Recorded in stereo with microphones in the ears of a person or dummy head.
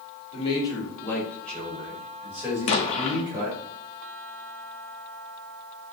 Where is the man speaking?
30° left (ahead or behind), 1.5 m; by 3.6 s 25° right (ahead or behind), 3 m.